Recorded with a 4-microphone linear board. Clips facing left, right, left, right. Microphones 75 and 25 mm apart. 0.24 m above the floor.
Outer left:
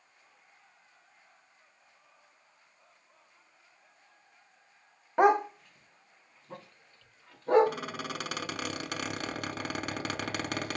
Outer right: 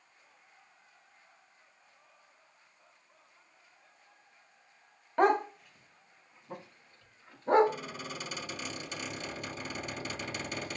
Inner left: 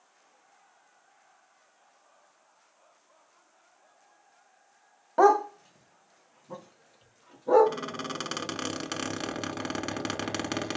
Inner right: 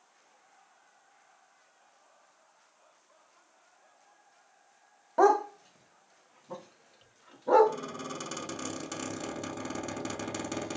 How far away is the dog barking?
About 0.5 m.